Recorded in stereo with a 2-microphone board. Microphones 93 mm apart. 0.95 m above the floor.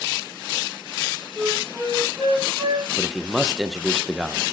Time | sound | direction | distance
1.4 | a flute | 60° right (ahead or behind) | 4.5 m
3.0 | a man speaking | 5° right (ahead or behind) | 0.6 m